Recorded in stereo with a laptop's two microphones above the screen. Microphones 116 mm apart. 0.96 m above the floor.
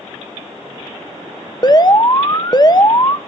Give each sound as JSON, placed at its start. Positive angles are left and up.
{"t": 1.6, "sound": "an alarm", "side_deg": 35, "distance_m": 1.1}